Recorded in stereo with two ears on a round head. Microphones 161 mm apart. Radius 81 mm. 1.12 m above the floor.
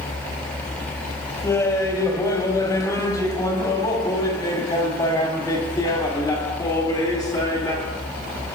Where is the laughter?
20° left (ahead or behind), 4.5 m; by 8.0 s 25° left (ahead or behind), 8.5 m.